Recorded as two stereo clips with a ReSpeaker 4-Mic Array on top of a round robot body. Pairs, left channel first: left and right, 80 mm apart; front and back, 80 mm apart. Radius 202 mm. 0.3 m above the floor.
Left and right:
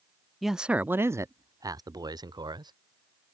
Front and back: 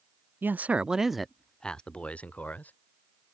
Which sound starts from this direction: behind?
A man speaking, at 0.4 s.